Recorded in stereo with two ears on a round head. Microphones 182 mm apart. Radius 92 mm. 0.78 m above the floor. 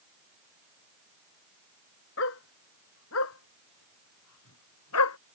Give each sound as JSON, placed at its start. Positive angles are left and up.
{"t": 2.2, "sound": "a dog barking", "side_deg": 65}